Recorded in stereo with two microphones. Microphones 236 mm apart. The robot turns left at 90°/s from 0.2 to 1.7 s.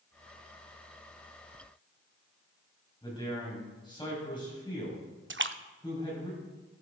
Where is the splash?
55° right (ahead or behind), 0.5 m.